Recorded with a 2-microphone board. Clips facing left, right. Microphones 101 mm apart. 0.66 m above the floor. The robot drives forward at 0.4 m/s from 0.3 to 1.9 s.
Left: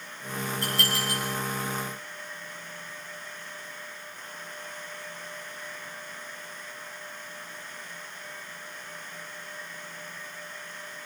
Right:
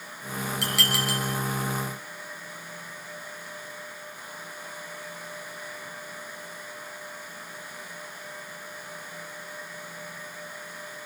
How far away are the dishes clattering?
About 6.5 m.